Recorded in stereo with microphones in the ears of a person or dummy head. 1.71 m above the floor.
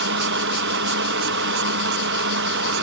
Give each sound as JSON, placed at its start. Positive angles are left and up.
{"t": 0.0, "sound": "a fan", "side_deg": -65}